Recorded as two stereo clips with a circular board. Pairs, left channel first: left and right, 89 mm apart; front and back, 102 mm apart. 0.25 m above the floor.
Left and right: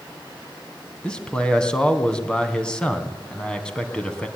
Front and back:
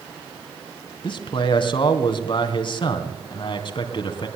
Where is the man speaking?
10° left, 2.5 m.